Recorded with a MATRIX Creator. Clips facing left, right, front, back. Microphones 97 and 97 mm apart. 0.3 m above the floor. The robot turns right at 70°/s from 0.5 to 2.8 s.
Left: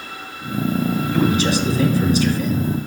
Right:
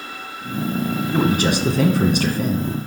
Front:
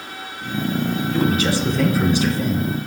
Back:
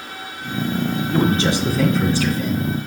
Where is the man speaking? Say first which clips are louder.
Even, back 2 dB; 140° right, 2.5 m; by 2.7 s 30° right, 2.5 m.